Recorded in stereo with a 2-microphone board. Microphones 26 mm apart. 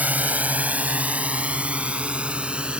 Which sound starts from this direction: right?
A drone, at 0.0 s.